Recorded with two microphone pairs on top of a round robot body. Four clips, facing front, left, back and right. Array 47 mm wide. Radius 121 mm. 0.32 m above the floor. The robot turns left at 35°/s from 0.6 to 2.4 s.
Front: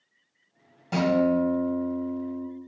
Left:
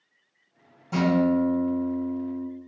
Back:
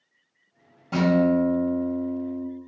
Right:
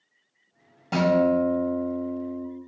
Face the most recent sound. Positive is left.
turn(degrees=-120)